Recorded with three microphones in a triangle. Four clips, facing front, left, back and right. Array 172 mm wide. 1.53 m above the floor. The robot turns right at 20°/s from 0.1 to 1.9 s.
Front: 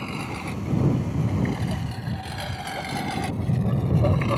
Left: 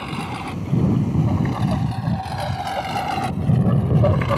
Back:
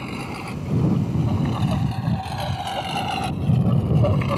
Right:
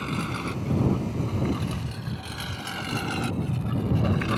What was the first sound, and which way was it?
A lawn mower, 90° left.